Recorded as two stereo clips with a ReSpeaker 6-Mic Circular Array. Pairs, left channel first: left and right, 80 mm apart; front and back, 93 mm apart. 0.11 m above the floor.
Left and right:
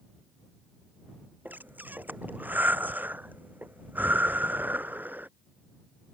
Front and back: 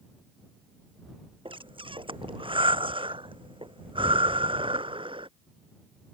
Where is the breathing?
160° right.